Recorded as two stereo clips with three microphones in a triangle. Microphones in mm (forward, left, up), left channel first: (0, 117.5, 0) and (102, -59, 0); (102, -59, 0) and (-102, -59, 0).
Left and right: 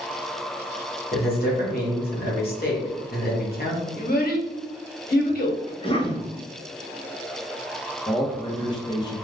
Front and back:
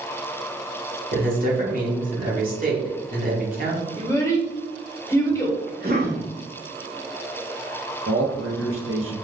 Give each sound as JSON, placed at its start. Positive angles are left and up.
{"t": 1.1, "sound": "a man speaking", "azimuth_deg": 145, "distance_m": 1.1}
{"t": 4.0, "sound": "a child speaking", "azimuth_deg": 75, "distance_m": 0.9}
{"t": 5.7, "sound": "a cough", "azimuth_deg": 170, "distance_m": 0.8}
{"t": 8.1, "sound": "a man speaking", "azimuth_deg": -175, "distance_m": 0.8}